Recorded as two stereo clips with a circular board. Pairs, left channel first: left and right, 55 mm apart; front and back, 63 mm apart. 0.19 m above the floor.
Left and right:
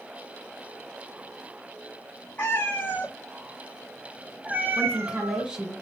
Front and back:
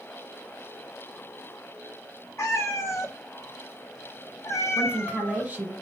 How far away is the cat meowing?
About 1.4 m.